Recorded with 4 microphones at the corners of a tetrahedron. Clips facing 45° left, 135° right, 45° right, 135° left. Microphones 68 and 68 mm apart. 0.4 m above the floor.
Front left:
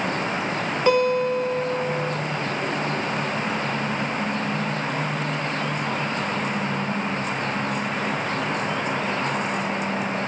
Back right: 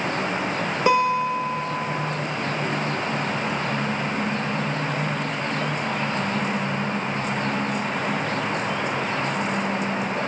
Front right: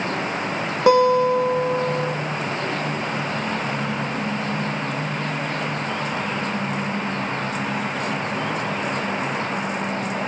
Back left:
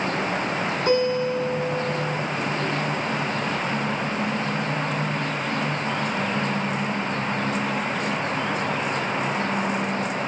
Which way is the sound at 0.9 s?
60° right.